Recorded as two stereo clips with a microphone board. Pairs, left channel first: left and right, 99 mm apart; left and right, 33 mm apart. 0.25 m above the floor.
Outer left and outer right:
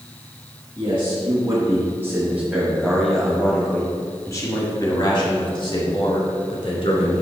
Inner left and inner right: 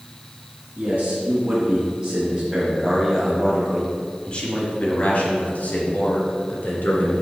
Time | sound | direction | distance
0.8 | a man speaking | 40° right (ahead or behind) | 1.9 m